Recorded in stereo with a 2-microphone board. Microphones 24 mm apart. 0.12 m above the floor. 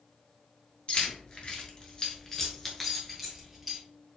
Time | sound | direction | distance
0.9 | keys jangling | 40° left (ahead or behind) | 1.2 m